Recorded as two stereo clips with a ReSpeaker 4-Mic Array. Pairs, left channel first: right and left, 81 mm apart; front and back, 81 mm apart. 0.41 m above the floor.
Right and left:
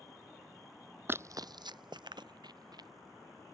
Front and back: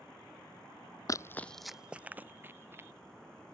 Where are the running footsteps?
30° left; by 2.9 s 120° left.